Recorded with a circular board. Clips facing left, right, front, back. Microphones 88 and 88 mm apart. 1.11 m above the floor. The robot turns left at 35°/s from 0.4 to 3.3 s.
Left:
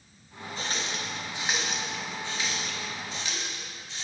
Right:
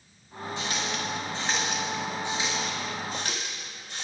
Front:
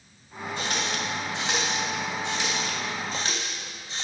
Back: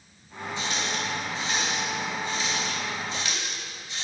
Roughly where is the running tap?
Ahead left.